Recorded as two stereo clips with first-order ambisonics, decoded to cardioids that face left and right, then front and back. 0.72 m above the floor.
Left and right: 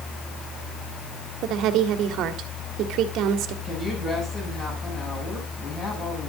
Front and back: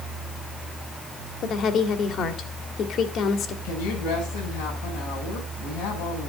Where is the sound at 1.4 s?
55° right, 1.7 m.